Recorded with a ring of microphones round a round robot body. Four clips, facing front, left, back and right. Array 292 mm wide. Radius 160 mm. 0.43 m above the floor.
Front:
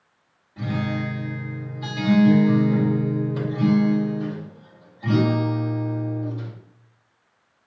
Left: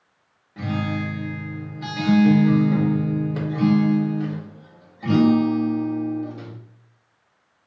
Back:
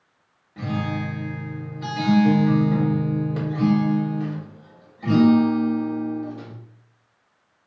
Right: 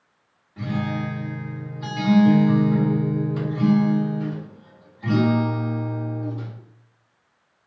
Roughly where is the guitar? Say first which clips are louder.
Left 1 dB, even; behind left.